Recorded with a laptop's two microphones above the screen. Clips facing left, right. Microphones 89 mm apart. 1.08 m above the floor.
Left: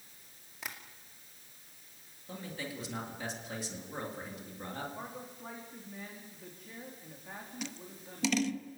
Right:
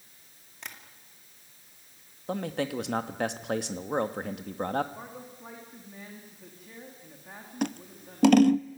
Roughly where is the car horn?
No car horn in this recording.